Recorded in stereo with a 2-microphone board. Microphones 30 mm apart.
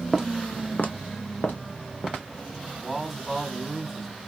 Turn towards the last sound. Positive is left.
turn(degrees=0)  # may be behind; listen again after turning